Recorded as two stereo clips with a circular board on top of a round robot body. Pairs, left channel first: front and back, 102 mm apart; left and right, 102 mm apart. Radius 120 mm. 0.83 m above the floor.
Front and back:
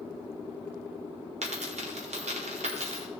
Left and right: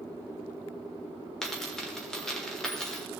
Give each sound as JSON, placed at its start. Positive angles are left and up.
{"t": 1.4, "sound": "a dropped coin", "azimuth_deg": 175, "distance_m": 1.5}